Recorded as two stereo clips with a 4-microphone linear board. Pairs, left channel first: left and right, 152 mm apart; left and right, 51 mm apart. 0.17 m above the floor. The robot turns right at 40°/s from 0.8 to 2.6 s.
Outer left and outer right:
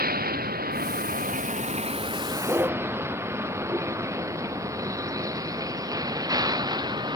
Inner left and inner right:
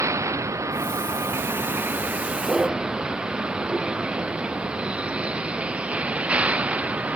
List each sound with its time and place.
0.0 s a vehicle: 80° right; by 7.2 s 25° right (ahead or behind)